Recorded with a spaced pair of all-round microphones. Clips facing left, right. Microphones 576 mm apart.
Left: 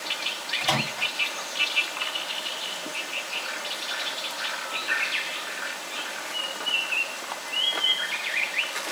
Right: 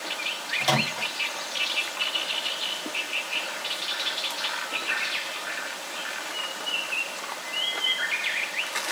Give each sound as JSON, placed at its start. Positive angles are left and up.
{"t": 0.6, "sound": "a microwave", "side_deg": -85, "distance_m": 1.4}